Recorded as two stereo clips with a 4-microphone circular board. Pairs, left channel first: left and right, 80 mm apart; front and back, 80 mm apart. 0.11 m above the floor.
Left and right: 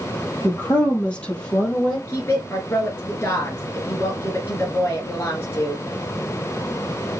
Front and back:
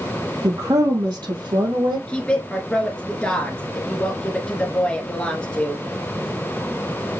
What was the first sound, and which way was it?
A woman speaking, 150° left.